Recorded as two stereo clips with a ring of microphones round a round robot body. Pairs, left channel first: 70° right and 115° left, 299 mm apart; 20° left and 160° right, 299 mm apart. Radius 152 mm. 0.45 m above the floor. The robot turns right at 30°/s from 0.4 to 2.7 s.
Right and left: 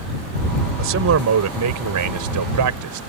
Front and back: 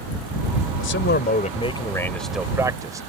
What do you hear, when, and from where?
0.8 s a man speaking: 65° left; by 3.1 s 125° left